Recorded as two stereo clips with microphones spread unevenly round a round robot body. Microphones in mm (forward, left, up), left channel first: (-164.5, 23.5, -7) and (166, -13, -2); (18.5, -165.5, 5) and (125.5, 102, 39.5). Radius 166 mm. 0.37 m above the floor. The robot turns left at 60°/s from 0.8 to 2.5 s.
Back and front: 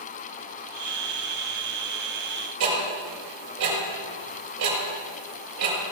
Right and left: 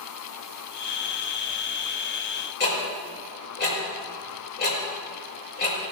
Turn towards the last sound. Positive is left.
turn(degrees=-55)